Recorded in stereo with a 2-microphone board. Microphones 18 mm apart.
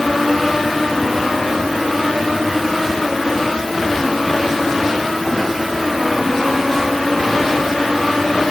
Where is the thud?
No thud in this recording.